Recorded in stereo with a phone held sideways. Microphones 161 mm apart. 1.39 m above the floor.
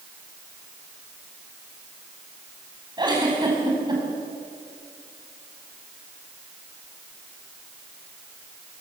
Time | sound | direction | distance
3.0 | a giggle | 25° right (ahead or behind) | 6 m